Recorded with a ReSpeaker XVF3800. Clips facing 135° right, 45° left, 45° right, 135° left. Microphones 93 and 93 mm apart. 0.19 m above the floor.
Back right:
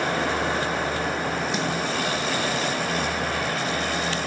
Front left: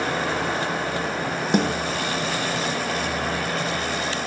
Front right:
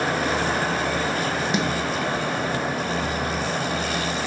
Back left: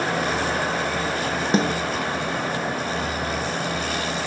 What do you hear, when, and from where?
1.5 s a snare drum: 80° left